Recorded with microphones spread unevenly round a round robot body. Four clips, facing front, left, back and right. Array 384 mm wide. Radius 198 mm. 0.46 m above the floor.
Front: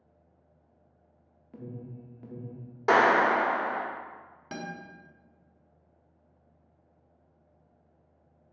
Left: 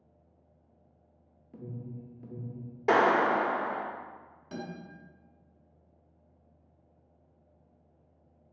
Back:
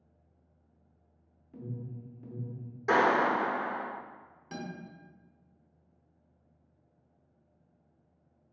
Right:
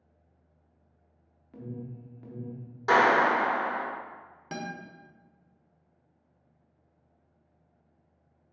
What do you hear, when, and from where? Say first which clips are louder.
1.5 s an alarm: right 2 dB, even; 120° left, 0.6 m
2.9 s a clap: right 2 dB, front 4 dB; 55° left, 0.8 m
4.5 s a guitar: right 3 dB, front 2 dB; 55° right, 1.2 m